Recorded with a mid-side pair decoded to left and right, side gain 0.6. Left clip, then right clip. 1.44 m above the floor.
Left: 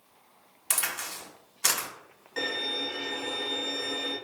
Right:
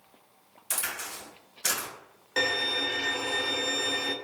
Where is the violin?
45° right, 0.7 m.